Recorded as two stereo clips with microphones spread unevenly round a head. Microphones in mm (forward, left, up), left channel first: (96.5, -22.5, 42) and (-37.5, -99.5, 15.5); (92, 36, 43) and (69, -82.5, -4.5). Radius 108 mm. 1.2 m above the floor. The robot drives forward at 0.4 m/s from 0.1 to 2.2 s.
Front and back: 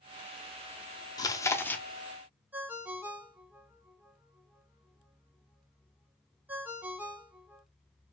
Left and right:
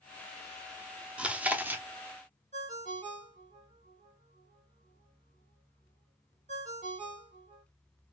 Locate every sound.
1.2 s chewing: 40° right, 0.8 m; by 1.8 s 60° right, 0.7 m
2.5 s a ringtone: 65° right, 1.0 m